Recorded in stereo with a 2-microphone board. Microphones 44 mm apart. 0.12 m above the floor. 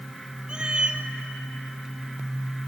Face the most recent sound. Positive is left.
turn(degrees=-20)  # may be behind; listen again after turning